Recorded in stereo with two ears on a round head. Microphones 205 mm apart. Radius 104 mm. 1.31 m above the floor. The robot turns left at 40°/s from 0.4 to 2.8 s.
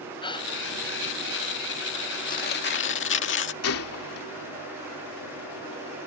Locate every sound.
0.2 s a gasp: 20° left (ahead or behind); by 0.5 s 25° left (ahead or behind)
2.3 s tearing paper: 35° left (ahead or behind); by 3.5 s 55° left (ahead or behind)
3.6 s a gunshot: 70° left (ahead or behind)